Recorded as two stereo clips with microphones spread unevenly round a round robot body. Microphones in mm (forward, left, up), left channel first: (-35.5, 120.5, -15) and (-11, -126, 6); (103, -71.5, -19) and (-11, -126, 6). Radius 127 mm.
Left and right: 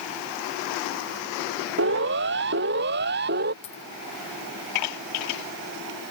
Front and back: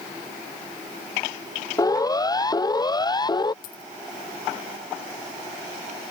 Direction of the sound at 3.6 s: 25° left.